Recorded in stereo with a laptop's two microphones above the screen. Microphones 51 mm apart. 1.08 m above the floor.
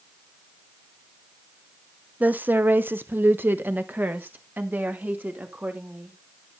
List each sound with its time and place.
2.2 s a woman speaking: 30° right (ahead or behind), 0.8 m; by 6.2 s 35° right (ahead or behind), 3 m